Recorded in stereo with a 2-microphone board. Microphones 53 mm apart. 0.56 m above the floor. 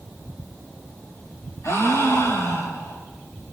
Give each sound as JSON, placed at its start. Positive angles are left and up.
{"t": 1.6, "sound": "a gasp", "side_deg": 70, "distance_m": 4.0}